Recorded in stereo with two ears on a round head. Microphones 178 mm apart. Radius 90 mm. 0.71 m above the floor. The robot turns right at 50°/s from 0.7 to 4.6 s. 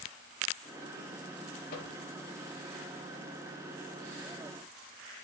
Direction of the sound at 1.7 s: 45° left (ahead or behind).